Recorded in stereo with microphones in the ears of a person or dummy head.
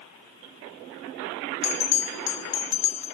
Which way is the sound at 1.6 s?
25° left (ahead or behind).